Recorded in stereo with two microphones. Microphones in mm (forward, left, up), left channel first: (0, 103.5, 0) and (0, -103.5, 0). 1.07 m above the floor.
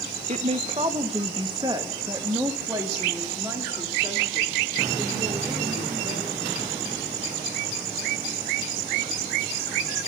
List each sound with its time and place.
0.3 s a woman speaking: 35° right (ahead or behind), 0.8 m; by 6.5 s 10° right (ahead or behind), 4.5 m